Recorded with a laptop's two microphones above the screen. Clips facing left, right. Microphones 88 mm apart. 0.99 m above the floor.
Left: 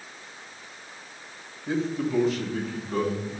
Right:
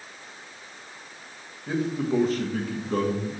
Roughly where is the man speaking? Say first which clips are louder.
Right 1 dB; centre.